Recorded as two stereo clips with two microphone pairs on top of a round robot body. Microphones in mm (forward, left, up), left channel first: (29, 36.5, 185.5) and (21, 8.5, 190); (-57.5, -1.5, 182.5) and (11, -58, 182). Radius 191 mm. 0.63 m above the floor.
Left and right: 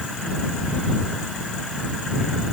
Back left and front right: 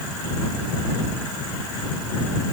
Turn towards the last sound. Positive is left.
No sound to turn to.